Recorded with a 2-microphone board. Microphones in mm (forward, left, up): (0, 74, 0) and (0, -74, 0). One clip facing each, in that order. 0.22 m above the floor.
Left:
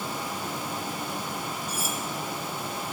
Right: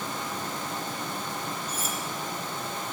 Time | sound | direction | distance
1.7 | cutlery clinking | 10° left (ahead or behind) | 1.7 m